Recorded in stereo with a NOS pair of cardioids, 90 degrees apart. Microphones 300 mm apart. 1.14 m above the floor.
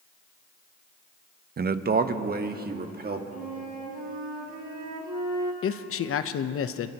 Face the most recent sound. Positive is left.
turn(degrees=50)